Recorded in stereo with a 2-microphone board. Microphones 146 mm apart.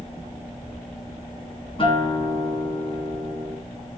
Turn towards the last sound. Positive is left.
turn(degrees=40)  # may be behind; listen again after turning